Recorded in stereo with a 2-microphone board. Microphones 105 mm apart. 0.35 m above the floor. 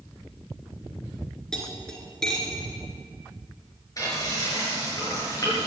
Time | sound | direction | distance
1.5 | cutlery clinking | 5° left (ahead or behind) | 3 m
4.0 | frying | 35° left (ahead or behind) | 6.5 m